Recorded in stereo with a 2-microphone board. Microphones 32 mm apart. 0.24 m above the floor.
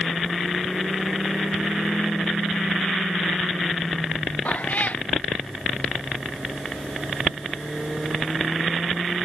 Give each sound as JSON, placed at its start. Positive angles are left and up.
{"t": 4.5, "sound": "a cat meowing", "side_deg": 55}